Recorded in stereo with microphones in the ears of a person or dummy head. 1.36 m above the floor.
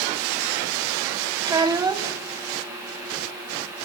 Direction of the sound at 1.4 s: 15° right (ahead or behind).